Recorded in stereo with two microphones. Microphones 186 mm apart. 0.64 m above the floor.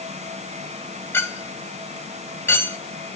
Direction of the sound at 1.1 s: 10° left (ahead or behind).